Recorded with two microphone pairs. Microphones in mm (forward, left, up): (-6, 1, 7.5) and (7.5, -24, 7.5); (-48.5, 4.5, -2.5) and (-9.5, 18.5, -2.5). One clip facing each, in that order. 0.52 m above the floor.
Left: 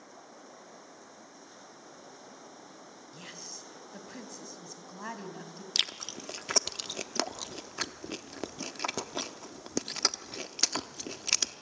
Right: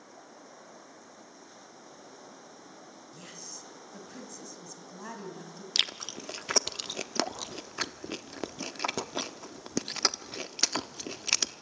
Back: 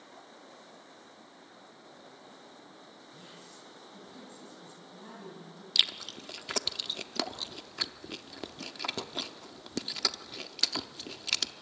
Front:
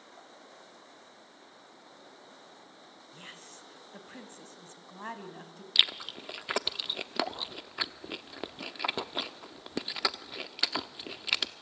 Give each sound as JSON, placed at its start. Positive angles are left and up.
{"t": 3.1, "sound": "a woman speaking", "azimuth_deg": 50, "distance_m": 3.5}
{"t": 5.8, "sound": "chewing", "azimuth_deg": 10, "distance_m": 0.8}